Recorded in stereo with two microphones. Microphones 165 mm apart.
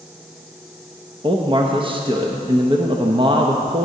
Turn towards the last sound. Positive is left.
turn(degrees=-30)  # may be behind; listen again after turning